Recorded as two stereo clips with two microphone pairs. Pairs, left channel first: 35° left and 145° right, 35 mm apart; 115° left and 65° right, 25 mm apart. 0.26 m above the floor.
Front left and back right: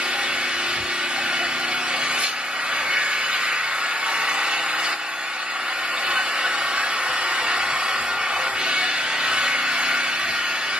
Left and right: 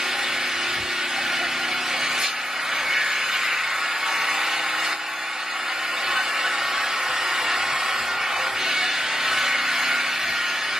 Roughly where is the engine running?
Behind right.